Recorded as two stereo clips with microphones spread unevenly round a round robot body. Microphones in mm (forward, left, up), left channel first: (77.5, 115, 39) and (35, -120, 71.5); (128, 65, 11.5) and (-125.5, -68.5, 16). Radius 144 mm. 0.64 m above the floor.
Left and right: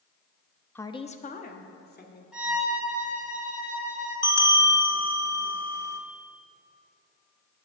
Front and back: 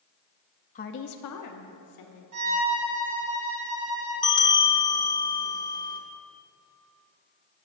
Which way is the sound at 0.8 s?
25° left.